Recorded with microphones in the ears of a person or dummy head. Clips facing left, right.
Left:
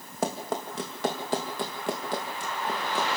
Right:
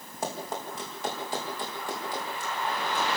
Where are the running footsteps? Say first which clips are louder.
Left 4 dB; 60° left (ahead or behind), 4 m; by 3.2 s 55° left (ahead or behind), 6 m.